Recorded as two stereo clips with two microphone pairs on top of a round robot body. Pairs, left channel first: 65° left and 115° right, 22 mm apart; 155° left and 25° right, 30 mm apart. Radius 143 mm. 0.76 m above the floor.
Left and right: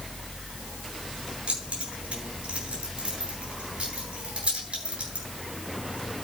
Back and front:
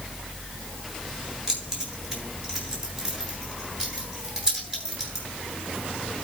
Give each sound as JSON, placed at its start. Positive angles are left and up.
{"t": 1.5, "sound": "keys jangling", "azimuth_deg": -100, "distance_m": 8.5}